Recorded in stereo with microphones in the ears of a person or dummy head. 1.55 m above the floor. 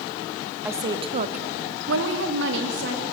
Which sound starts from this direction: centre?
A woman speaking, at 0.7 s.